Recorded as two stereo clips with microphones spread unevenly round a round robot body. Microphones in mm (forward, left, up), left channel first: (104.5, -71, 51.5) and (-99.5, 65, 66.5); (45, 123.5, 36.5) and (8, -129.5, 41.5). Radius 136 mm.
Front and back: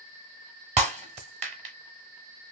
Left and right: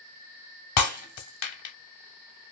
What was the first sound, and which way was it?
Breaking glass, 85° left.